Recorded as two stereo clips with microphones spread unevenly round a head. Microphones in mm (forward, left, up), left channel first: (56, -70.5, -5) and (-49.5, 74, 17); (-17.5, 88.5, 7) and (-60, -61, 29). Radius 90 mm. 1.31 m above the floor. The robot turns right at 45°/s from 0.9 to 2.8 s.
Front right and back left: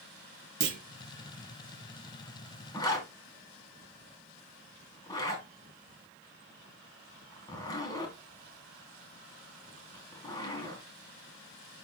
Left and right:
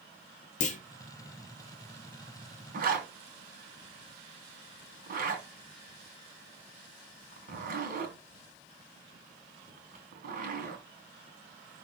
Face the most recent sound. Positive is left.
turn(degrees=-125)